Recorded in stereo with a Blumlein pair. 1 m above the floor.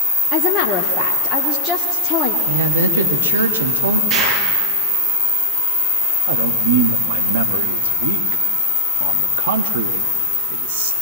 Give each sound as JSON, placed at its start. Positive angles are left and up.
{"t": 0.3, "sound": "a woman speaking", "azimuth_deg": 30, "distance_m": 1.9}
{"t": 2.5, "sound": "a woman speaking", "azimuth_deg": -70, "distance_m": 1.6}
{"t": 4.1, "sound": "an explosion", "azimuth_deg": -45, "distance_m": 9.5}
{"t": 6.3, "sound": "a man speaking", "azimuth_deg": -60, "distance_m": 1.3}